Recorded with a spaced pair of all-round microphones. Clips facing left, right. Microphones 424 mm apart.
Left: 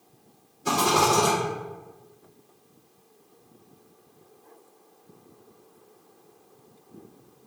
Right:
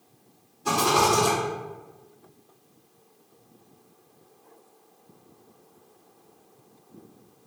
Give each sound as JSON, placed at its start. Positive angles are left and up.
{"t": 0.7, "sound": "a rattle", "side_deg": -5, "distance_m": 1.6}